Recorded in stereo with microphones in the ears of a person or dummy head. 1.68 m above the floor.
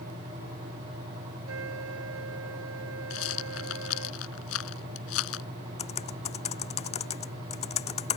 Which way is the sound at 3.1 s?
80° left.